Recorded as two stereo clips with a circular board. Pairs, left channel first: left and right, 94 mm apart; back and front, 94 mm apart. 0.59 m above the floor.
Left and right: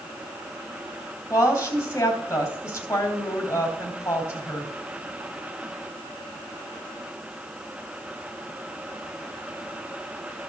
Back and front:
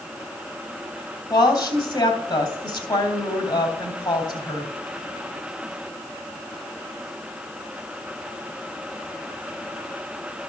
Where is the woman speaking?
150° left, 3 m.